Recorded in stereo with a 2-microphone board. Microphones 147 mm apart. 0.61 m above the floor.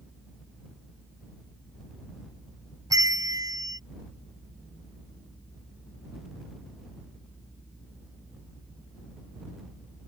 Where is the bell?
25° right (ahead or behind).